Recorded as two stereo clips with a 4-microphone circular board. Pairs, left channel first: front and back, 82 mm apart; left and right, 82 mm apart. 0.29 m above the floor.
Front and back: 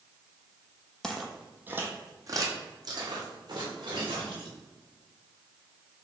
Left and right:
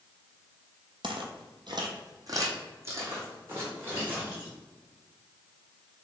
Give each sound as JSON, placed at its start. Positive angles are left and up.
{"t": 1.0, "sound": "footsteps", "azimuth_deg": -80, "distance_m": 0.7}